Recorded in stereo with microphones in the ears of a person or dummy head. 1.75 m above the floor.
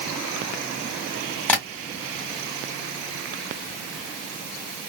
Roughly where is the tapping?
Centre.